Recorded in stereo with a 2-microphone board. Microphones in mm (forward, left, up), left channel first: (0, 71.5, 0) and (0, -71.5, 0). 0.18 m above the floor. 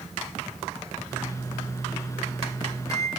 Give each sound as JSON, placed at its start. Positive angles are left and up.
{"t": 1.1, "sound": "a microwave", "side_deg": 25, "distance_m": 2.5}